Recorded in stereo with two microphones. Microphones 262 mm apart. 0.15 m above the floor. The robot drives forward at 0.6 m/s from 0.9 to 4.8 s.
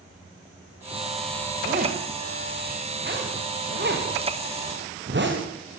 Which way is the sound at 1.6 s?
35° right (ahead or behind).